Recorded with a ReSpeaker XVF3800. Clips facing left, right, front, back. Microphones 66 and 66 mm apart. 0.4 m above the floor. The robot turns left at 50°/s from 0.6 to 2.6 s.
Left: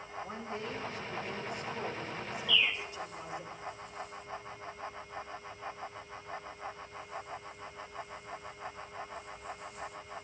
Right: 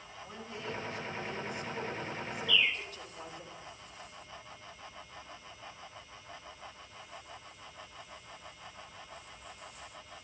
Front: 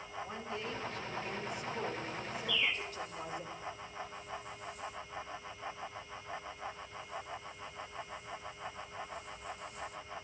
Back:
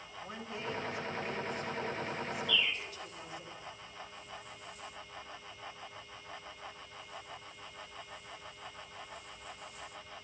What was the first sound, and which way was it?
A woman speaking, 125° left.